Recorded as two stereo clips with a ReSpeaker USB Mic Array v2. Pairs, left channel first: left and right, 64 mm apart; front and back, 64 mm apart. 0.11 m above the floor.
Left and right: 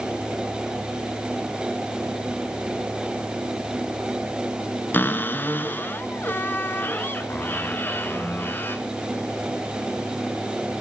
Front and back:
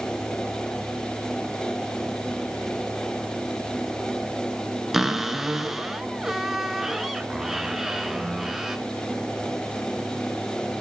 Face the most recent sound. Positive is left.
turn(degrees=100)